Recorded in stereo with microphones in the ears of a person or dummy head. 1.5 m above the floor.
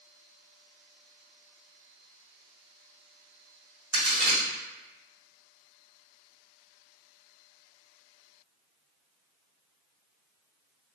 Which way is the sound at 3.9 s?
60° right (ahead or behind).